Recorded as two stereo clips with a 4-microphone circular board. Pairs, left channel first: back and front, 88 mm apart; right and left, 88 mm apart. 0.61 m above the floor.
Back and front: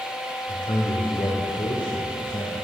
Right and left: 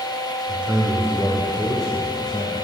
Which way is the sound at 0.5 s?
165° left.